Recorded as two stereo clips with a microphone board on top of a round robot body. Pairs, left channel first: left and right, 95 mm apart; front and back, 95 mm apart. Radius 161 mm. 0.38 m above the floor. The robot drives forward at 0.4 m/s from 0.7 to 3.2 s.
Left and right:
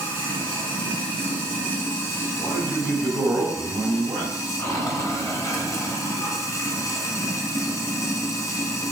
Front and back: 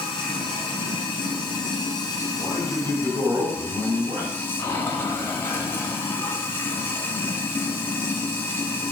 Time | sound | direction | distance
0.0 | running water | 20° left | 1.7 m
2.4 | a man speaking | 155° right | 2.5 m